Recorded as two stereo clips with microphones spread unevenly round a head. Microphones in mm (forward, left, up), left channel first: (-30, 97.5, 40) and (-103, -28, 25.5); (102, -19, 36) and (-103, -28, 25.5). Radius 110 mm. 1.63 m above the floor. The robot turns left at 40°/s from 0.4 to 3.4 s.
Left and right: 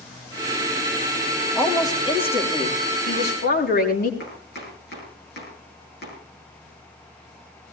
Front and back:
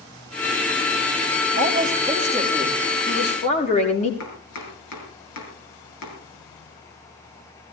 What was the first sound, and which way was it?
A woman speaking, 135° left.